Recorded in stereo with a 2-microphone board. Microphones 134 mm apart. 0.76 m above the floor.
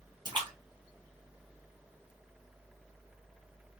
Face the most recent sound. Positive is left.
turn(degrees=-30)  # may be behind; listen again after turning